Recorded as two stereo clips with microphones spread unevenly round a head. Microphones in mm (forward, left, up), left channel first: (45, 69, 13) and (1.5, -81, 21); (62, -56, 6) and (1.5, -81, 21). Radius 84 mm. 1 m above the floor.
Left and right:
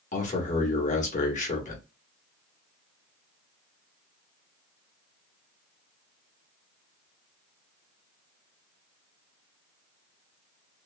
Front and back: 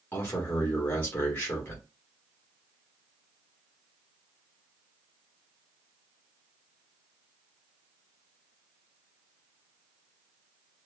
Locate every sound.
0.1 s a man speaking: 70° left, 1.1 m